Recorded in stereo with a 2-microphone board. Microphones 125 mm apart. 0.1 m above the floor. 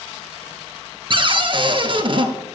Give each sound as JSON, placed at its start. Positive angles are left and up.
{"t": 1.1, "sound": "a cupboard door", "side_deg": -45, "distance_m": 0.7}